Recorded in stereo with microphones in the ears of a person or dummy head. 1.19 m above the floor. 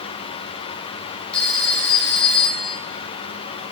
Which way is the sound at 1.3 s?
10° left (ahead or behind).